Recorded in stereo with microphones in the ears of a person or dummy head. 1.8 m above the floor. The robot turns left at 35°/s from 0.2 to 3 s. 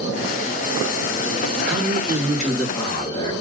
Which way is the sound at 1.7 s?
150° right.